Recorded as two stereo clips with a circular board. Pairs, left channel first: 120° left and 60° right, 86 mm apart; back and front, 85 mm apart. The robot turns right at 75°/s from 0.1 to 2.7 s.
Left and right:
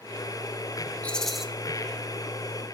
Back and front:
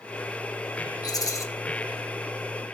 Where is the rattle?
175° right, 0.8 m; by 1.4 s 145° right, 0.8 m.